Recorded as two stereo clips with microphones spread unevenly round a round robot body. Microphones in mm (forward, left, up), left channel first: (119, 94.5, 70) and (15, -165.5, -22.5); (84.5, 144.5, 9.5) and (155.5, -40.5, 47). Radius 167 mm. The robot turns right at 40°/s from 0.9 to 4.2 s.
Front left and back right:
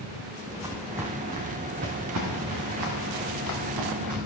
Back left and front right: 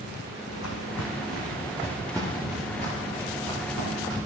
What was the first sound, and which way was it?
Footsteps, 165° left.